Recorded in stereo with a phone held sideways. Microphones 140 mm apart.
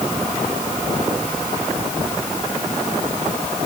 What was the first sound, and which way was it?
Only background noise.